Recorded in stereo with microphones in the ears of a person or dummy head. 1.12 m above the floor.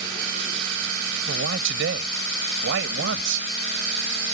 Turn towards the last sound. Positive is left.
turn(degrees=-70)  # may be behind; listen again after turning